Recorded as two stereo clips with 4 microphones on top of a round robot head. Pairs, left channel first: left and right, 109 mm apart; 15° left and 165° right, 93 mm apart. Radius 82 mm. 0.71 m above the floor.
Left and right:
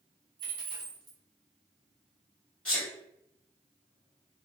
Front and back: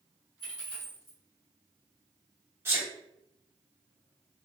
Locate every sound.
0.4 s a dropped coin: 45° right, 1.1 m
2.6 s a sneeze: 160° left, 1.0 m